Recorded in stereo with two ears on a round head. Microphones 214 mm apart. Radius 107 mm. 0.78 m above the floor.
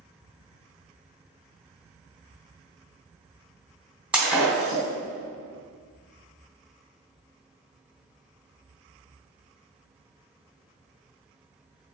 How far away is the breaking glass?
About 2.5 m.